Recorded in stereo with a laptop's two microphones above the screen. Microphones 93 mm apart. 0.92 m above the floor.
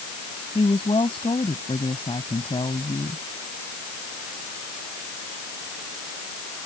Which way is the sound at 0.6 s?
75° left (ahead or behind).